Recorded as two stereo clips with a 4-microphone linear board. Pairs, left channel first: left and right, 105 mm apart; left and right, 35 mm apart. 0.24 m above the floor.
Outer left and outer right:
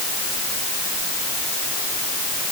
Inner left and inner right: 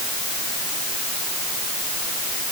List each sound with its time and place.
Only background noise.